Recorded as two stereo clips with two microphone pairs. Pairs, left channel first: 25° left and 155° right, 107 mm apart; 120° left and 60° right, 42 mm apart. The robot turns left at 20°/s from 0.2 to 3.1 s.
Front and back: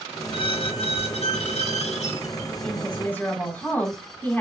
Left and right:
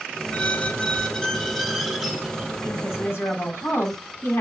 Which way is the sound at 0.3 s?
60° left.